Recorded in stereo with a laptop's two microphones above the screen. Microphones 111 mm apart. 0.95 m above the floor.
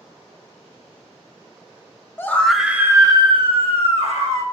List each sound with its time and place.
2.2 s a scream: 20° left (ahead or behind), 0.8 m; by 4.4 s 70° right (ahead or behind), 1.6 m